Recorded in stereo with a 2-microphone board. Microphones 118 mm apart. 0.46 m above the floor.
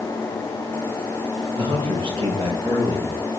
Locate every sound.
1.6 s a man speaking: 50° right (ahead or behind), 8 m; by 3.1 s 40° right (ahead or behind), 8.5 m